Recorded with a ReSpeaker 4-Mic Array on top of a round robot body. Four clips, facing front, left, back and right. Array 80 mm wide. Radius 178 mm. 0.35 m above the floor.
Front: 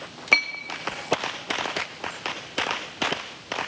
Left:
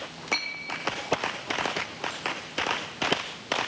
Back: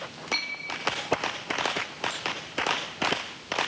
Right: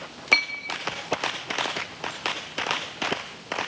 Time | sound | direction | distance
0.3 | a clink | 30° right | 1.9 m